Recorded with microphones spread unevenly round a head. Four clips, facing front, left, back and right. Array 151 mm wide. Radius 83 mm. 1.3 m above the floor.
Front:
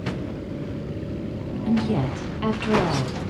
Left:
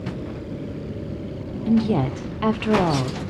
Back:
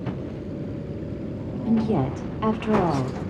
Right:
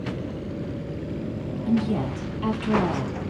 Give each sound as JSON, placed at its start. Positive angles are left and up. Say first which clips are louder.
{"t": 1.7, "sound": "a woman speaking", "louder": "left 4 dB, back 1 dB", "azimuth_deg": 125, "distance_m": 0.6}